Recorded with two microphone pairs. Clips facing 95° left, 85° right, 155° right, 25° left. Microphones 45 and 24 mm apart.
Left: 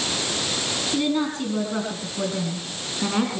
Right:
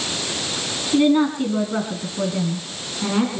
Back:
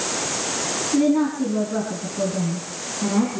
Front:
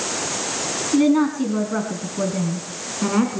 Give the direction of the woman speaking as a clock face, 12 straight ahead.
1 o'clock.